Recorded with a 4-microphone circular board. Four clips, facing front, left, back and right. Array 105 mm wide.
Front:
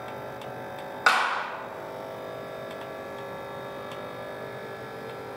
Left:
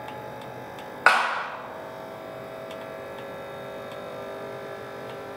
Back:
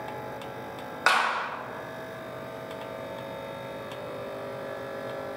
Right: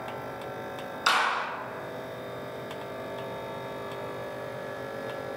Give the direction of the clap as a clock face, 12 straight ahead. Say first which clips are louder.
Left 5 dB, front 1 dB; 9 o'clock.